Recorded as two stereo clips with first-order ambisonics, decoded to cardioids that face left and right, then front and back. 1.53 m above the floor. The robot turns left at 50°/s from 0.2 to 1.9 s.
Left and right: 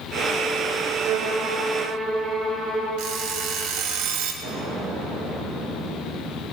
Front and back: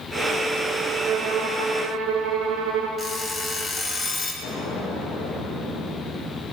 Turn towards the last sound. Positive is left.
turn(degrees=-45)